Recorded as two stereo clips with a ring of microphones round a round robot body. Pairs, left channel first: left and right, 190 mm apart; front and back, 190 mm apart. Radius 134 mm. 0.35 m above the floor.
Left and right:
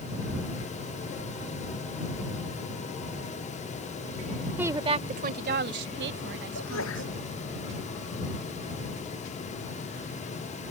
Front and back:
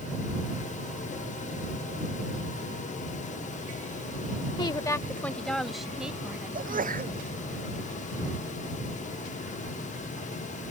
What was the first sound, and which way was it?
A woman speaking, 20° right.